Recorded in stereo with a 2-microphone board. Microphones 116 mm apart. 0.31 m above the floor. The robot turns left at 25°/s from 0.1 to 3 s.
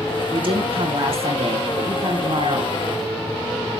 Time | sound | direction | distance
0.3 | a woman speaking | 65° right | 3.5 m